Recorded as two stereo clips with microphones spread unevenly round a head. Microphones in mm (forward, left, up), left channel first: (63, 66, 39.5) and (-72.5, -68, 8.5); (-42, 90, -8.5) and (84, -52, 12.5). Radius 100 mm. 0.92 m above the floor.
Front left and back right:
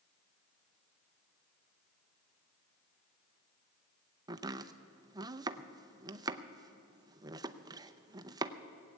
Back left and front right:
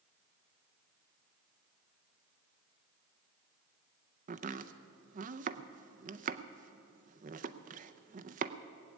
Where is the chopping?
85° right, 0.6 m.